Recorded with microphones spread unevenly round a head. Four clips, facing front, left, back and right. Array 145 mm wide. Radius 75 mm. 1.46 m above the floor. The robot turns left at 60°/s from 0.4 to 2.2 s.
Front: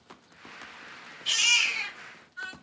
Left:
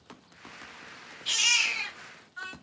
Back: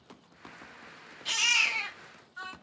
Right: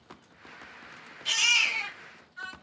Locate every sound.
1.2 s a baby crying: 150° right, 0.7 m; by 2.5 s 155° left, 0.7 m